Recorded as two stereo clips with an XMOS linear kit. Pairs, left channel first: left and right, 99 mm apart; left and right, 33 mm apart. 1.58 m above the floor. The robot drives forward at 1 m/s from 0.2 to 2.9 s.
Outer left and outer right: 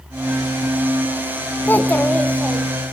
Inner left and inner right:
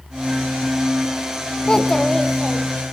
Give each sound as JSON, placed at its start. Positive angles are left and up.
{"t": 1.7, "sound": "a child speaking", "side_deg": 20, "distance_m": 0.6}